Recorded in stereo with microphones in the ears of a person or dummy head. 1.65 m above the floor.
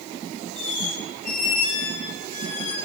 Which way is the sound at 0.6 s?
40° left (ahead or behind).